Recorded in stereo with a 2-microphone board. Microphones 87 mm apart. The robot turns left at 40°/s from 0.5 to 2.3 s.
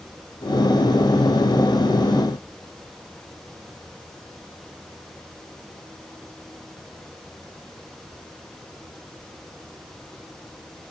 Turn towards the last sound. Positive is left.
No sound to turn to.